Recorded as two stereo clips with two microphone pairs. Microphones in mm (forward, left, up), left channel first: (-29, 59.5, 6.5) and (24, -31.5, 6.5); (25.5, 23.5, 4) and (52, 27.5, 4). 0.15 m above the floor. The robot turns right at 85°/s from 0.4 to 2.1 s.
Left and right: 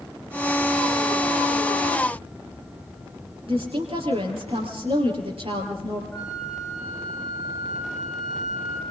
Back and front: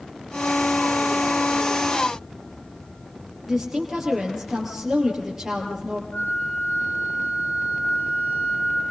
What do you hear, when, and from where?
3.5 s a woman speaking: 70° right, 4 m
6.1 s a flute: 150° right, 5 m